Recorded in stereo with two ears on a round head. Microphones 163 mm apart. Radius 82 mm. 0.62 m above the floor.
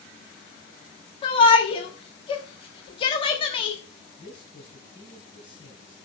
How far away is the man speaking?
About 6 m.